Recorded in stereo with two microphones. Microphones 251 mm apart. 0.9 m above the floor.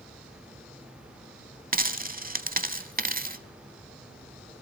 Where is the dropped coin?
35° right (ahead or behind), 0.9 m.